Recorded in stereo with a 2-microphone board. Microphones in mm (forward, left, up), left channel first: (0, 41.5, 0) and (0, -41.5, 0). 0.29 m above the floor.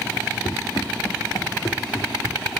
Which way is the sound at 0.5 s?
75° left (ahead or behind).